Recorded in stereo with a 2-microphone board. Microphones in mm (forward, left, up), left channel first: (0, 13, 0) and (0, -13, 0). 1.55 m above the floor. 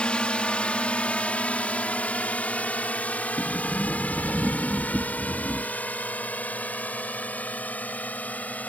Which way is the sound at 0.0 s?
40° left (ahead or behind).